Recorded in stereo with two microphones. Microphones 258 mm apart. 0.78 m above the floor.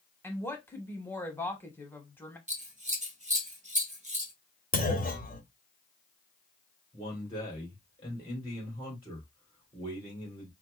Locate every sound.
0.2 s a woman speaking: 10° left (ahead or behind), 1.1 m
2.5 s scissors: 25° right (ahead or behind), 1.0 m
4.7 s a clunk: 35° left (ahead or behind), 0.9 m
6.9 s a man speaking: 15° left (ahead or behind), 2.5 m